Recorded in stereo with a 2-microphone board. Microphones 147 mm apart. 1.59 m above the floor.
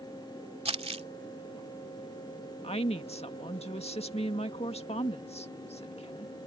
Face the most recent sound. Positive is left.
turn(degrees=45)  # may be behind; listen again after turning